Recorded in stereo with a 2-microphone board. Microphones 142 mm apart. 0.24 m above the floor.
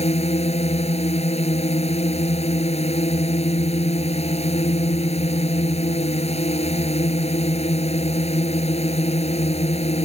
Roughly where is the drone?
Left.